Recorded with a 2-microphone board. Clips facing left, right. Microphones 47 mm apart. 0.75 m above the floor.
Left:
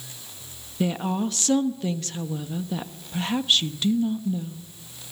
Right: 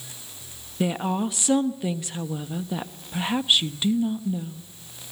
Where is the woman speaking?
15° right (ahead or behind), 1.1 m.